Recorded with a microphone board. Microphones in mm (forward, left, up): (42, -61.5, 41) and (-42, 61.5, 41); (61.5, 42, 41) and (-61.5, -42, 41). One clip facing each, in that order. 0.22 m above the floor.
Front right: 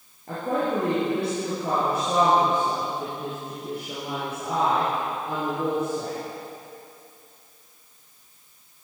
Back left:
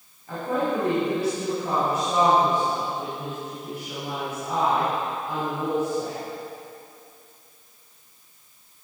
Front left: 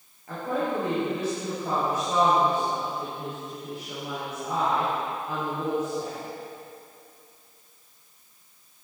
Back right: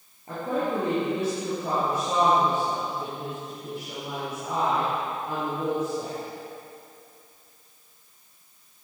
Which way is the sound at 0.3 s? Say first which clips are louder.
Even, back right 1 dB; 85° right.